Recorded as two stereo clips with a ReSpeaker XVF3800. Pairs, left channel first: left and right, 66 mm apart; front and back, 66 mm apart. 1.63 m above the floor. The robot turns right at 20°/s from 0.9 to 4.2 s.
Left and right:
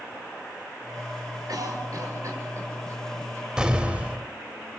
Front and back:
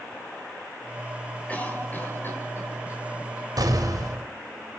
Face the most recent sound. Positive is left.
turn(degrees=-155)